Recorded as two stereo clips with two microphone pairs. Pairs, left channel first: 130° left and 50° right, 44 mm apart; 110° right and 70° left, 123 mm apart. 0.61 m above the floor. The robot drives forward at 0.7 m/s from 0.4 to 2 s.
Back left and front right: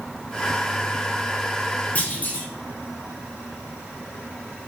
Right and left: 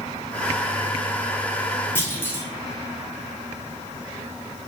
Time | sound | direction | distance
1.9 | a clunk | straight behind | 0.6 m